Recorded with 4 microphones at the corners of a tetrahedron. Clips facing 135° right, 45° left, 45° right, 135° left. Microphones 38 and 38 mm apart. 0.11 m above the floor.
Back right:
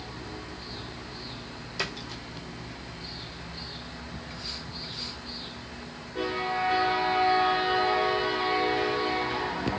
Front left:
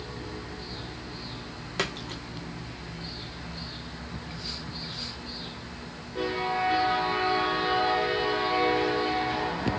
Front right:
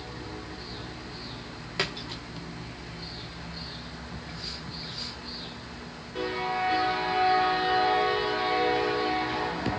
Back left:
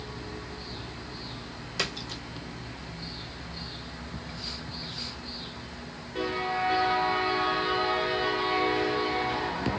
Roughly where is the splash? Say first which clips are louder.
Front left 2 dB, front right 1 dB; ahead.